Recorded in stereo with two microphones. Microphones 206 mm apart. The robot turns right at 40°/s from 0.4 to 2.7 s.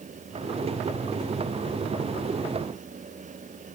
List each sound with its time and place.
Only background noise.